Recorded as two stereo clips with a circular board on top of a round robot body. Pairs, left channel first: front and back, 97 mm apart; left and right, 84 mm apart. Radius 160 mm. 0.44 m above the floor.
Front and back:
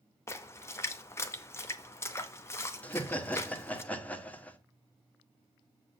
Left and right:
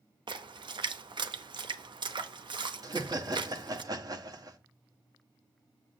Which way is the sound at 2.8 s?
70° right.